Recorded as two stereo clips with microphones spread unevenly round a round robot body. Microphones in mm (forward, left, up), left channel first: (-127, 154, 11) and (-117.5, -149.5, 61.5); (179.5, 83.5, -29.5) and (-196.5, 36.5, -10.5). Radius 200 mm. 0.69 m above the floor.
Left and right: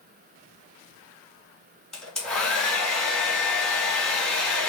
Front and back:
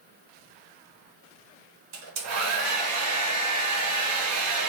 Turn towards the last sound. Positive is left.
turn(degrees=180)